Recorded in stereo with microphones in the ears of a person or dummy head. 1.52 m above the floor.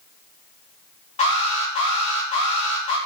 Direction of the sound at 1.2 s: 40° left (ahead or behind).